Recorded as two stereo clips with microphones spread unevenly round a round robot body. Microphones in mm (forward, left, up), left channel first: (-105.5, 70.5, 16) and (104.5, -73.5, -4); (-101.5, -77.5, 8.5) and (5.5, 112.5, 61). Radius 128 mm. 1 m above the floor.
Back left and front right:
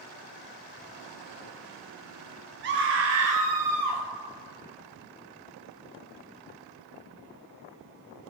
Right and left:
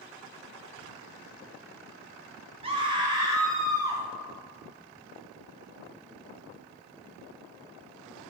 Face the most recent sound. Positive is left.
turn(degrees=-25)